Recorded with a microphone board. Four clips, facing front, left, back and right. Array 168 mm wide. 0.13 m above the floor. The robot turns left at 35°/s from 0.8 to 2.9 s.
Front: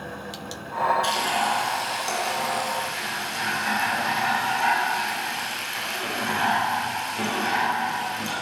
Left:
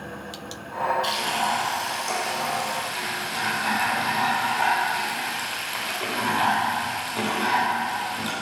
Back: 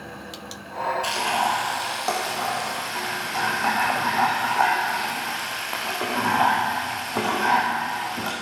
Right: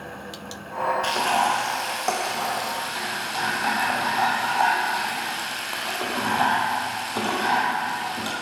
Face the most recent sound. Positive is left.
turn(degrees=-155)